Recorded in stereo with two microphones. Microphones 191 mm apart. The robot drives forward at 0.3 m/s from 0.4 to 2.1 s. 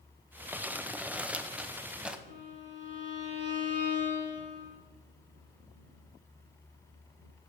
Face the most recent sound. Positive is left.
turn(degrees=-45)  # may be behind; listen again after turning